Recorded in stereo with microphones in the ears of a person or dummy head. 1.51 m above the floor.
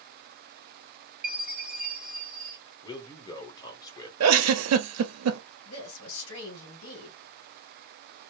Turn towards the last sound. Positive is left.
turn(degrees=80)